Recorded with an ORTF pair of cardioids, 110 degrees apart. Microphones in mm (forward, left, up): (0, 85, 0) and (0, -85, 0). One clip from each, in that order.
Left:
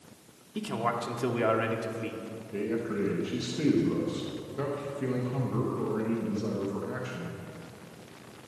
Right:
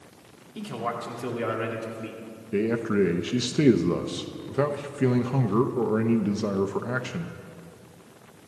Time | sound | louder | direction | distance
0.6 | a man speaking | left 1 dB | 20° left | 2.0 m
2.5 | a man speaking | right 7 dB | 50° right | 0.8 m